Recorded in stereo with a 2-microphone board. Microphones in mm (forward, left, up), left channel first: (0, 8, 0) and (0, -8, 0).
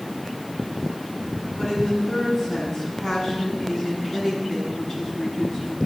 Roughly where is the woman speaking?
Centre.